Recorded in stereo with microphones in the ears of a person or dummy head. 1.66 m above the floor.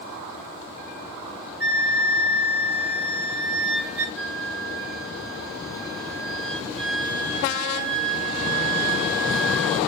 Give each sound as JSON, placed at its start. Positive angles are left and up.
{"t": 1.6, "sound": "a flute", "side_deg": -5, "distance_m": 3.5}
{"t": 4.2, "sound": "a flute", "side_deg": 0, "distance_m": 3.5}